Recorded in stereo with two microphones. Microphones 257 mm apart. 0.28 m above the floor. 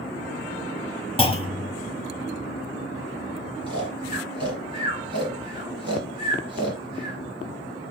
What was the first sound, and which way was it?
A clunk, 20° left (ahead or behind).